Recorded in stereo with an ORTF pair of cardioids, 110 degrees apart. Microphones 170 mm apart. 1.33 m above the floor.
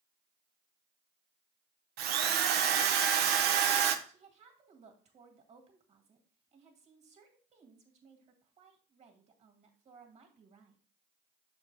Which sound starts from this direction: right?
A drill, at 2.0 s.